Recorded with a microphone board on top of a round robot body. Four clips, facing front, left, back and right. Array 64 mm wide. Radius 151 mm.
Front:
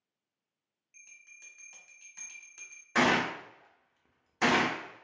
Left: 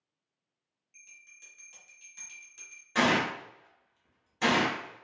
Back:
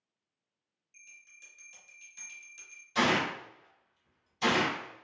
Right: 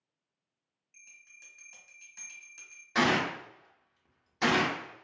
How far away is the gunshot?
About 0.6 m.